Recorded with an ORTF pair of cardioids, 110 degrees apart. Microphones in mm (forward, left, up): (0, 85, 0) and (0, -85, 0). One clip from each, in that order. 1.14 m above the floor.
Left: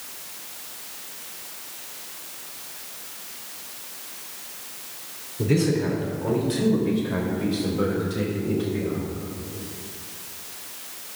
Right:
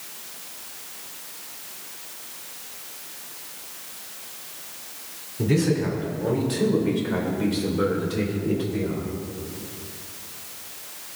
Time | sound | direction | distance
5.4 | a man speaking | 10° right | 3 m